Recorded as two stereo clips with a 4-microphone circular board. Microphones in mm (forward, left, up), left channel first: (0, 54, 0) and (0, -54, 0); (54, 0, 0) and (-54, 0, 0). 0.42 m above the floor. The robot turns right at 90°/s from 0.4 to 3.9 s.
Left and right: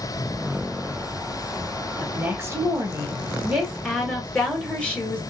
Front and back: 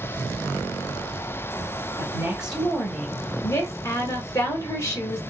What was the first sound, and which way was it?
A woman speaking, 150° right.